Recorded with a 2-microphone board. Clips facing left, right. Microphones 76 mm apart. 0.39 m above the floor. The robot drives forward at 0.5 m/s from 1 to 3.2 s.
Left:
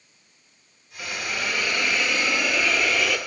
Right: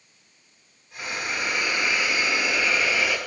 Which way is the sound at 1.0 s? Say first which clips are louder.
Right 1 dB; 15° right (ahead or behind).